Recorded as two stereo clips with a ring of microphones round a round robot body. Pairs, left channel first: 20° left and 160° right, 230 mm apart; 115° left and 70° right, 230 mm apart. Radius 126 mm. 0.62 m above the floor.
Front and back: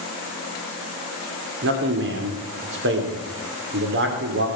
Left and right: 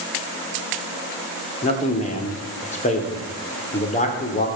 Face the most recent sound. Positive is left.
turn(degrees=170)